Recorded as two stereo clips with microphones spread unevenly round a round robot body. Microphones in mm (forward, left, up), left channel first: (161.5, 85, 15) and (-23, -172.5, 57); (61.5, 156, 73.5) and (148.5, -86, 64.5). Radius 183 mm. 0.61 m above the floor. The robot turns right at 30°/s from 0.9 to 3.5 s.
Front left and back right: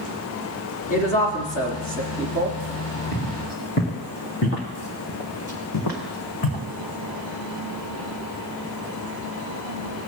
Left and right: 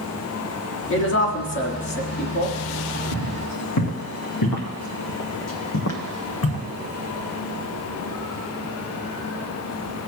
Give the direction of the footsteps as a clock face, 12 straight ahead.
8 o'clock.